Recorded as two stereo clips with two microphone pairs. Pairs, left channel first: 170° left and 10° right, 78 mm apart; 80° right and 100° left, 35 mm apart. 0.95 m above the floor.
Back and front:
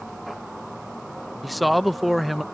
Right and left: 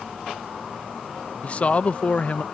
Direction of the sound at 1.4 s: 100° right.